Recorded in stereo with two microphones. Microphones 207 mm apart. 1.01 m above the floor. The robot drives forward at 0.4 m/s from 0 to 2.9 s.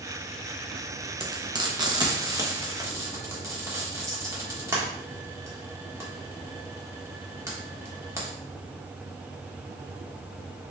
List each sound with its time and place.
1.2 s frying: 25° right (ahead or behind), 0.8 m; by 8.3 s 15° right (ahead or behind), 1.3 m